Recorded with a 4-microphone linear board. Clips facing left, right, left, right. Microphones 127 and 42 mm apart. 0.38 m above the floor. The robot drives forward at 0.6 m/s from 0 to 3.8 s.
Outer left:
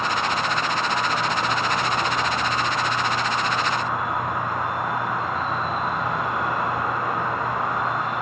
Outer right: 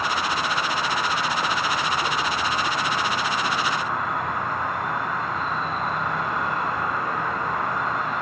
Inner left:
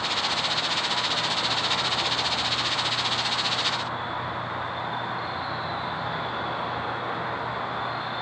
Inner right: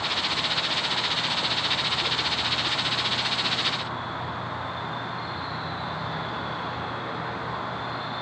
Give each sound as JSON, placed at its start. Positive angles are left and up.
{"t": 0.0, "sound": "an insect", "side_deg": 25, "distance_m": 10.0}